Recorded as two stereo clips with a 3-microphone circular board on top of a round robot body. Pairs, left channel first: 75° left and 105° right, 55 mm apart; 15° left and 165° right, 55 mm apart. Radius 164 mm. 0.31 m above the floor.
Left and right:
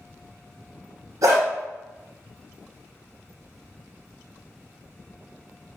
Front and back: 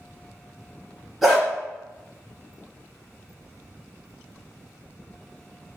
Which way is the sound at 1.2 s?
80° right.